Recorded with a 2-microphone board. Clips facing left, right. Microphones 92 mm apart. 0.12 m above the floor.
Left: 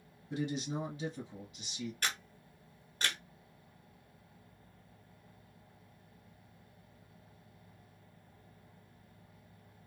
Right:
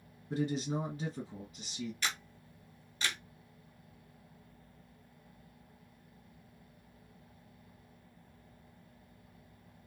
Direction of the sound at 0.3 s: 40° right (ahead or behind).